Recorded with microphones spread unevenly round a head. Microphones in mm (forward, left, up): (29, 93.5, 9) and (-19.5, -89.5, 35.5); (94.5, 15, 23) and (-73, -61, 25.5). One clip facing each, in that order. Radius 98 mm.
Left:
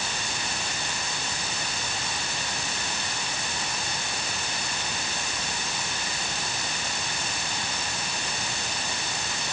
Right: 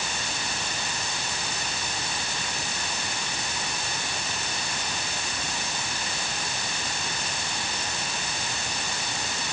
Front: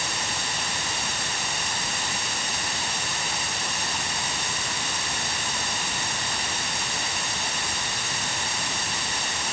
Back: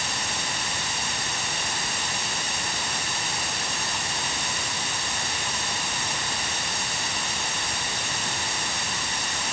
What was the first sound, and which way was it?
Only background noise.